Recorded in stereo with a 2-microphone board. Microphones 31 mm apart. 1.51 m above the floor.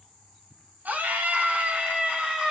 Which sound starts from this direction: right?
A scream, at 0.8 s.